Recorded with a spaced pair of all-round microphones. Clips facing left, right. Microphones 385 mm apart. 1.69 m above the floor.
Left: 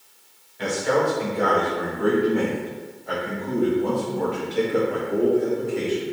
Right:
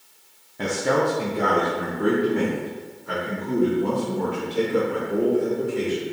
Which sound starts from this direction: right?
A man speaking, at 0.6 s.